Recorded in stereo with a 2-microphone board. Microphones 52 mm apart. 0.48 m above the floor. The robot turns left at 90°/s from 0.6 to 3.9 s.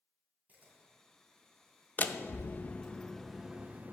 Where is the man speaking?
No man speaking in this recording.